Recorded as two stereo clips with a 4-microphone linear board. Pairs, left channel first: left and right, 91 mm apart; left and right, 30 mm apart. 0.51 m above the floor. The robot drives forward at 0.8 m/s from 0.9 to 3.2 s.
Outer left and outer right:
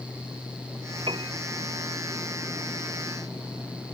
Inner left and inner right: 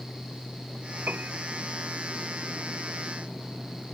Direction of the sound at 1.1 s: 70° right (ahead or behind).